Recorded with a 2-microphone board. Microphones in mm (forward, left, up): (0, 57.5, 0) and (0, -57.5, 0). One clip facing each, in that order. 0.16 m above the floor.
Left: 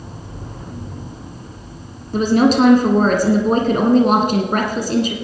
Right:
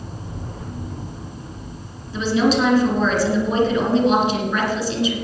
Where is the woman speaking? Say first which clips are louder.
Left 4 dB; 50° left (ahead or behind), 2 m.